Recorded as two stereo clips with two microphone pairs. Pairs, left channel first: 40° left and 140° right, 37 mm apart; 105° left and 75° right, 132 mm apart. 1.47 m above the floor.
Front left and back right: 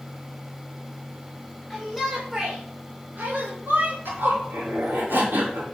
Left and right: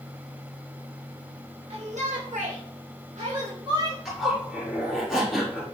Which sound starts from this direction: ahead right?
A shout, at 1.7 s.